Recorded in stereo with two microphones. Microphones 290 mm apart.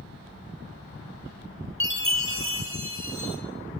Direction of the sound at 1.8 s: 45° right (ahead or behind).